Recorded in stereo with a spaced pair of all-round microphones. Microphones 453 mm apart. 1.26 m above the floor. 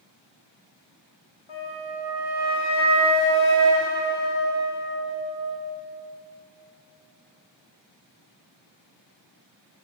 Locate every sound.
1.5 s a flute: 85° left, 1.4 m